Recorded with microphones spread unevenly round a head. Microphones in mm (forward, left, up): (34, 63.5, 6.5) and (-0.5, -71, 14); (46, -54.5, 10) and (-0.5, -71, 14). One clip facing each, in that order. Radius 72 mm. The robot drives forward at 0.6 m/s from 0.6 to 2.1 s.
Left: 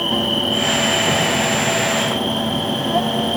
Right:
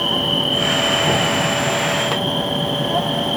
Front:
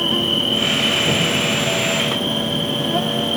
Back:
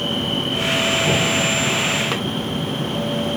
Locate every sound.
0.0 s an insect: straight ahead